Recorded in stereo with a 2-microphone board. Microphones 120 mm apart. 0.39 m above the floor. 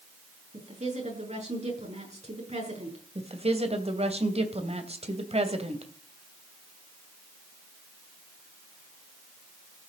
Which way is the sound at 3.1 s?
60° right (ahead or behind).